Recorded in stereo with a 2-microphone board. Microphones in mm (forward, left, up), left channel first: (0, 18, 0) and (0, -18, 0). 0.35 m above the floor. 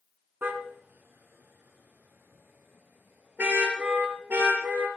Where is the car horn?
75° right (ahead or behind), 2.5 m; by 4.9 s 65° right (ahead or behind), 5.5 m.